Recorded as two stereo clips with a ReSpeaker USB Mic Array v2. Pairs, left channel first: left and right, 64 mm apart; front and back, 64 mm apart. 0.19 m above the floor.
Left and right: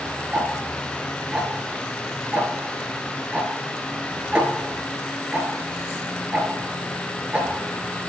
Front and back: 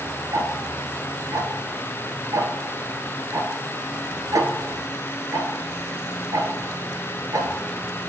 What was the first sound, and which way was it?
Ticking, 160° right.